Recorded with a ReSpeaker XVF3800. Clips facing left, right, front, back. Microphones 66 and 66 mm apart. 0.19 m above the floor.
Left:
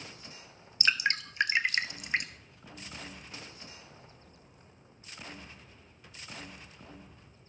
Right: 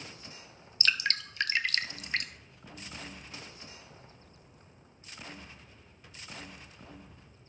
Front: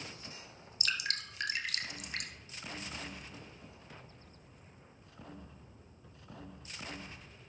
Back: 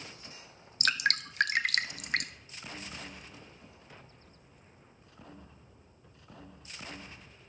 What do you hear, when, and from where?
0.8 s dripping: 160° left, 0.7 m